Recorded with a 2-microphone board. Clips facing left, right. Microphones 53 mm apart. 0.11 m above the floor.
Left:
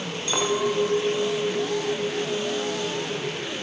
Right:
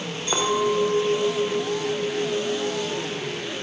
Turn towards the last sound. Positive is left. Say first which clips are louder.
# right 2 dB
turn(degrees=-80)